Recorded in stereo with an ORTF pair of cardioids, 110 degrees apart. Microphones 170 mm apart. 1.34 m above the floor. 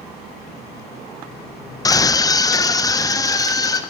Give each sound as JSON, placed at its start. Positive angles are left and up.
{"t": 1.9, "sound": "a scream", "azimuth_deg": 20, "distance_m": 1.1}